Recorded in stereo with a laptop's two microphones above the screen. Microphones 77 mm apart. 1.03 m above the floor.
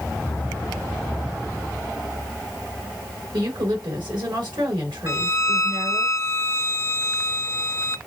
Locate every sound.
3.3 s a woman speaking: 80° right, 4 m
5.1 s a violin: 40° left (ahead or behind), 0.6 m